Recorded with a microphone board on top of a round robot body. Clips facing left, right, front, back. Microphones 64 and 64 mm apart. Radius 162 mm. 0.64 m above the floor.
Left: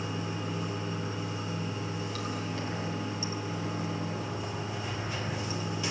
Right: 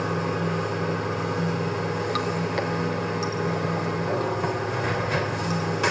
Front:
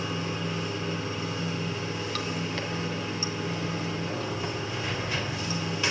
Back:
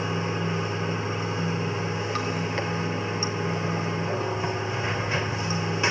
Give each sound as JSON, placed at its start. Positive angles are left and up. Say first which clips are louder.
{"t": 0.0, "sound": "running water", "louder": "right 9 dB, back 4 dB", "azimuth_deg": -115, "distance_m": 3.5}